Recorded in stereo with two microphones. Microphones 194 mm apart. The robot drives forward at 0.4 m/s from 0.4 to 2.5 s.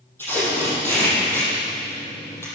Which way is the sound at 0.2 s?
10° left (ahead or behind).